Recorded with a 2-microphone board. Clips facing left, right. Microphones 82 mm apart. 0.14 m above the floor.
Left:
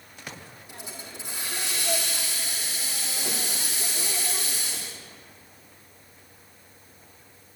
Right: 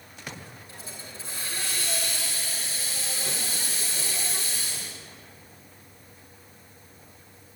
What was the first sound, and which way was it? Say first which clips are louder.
A hiss: left 4 dB; 20° left (ahead or behind).